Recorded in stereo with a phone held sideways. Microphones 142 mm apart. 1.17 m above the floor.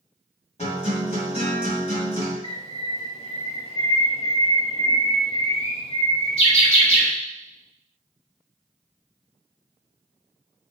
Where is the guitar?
55° left (ahead or behind), 1.8 m.